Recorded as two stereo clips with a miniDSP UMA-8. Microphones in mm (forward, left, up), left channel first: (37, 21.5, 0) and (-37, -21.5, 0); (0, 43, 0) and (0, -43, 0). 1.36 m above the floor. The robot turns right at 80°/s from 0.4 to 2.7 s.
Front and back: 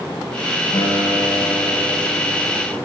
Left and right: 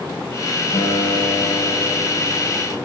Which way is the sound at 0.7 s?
50° left.